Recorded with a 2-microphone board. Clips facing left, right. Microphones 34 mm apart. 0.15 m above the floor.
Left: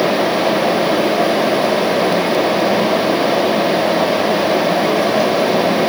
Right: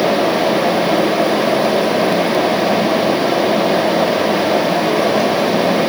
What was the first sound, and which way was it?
Only background noise.